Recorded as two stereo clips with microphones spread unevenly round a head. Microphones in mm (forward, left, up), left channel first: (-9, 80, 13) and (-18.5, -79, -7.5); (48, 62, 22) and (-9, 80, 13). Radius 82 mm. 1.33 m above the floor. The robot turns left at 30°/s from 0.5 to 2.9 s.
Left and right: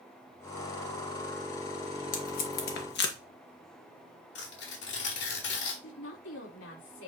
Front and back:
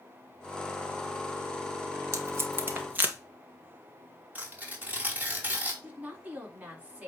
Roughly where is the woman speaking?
Left.